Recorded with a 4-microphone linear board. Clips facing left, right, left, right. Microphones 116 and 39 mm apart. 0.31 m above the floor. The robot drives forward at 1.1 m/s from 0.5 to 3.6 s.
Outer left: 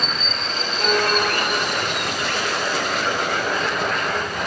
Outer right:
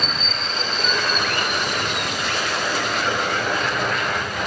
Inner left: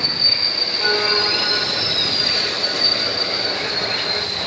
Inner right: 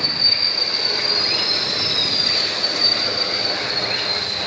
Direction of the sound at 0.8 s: 65° left (ahead or behind).